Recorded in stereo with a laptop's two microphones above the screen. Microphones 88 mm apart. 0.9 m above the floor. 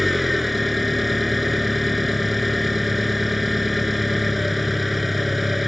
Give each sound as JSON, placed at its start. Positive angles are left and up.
{"t": 0.0, "sound": "an engine running", "side_deg": 0}